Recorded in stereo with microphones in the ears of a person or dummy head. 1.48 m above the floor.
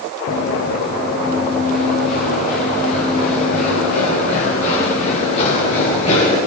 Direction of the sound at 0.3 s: 55° left (ahead or behind).